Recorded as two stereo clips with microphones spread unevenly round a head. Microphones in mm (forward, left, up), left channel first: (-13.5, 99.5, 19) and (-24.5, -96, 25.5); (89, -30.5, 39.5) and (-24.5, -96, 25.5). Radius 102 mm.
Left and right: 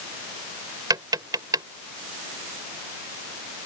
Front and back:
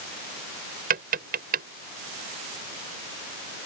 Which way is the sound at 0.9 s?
165° right.